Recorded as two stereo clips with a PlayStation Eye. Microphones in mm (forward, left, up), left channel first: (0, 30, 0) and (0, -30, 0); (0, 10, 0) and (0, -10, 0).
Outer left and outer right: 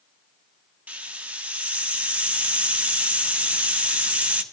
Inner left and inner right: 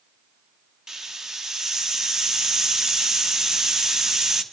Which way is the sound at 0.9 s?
25° right (ahead or behind).